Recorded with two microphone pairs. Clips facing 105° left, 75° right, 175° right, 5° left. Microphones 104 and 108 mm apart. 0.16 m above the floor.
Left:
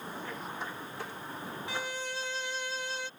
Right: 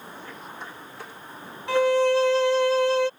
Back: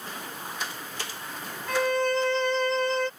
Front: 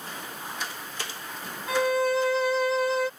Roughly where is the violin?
Right.